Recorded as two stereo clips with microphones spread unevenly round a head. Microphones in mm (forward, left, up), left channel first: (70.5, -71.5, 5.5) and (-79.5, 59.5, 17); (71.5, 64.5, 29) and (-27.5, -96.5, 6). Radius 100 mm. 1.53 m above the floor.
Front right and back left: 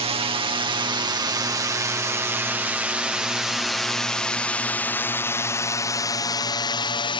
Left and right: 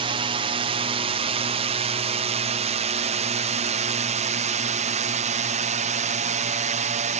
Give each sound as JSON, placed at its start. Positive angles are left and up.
{"t": 0.0, "sound": "a drone", "azimuth_deg": -165}